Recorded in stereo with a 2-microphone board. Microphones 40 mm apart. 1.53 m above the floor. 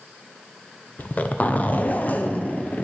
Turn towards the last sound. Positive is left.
turn(degrees=45)  # may be behind; listen again after turning